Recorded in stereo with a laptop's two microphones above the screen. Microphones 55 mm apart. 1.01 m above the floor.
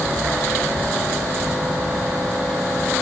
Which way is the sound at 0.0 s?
70° right (ahead or behind).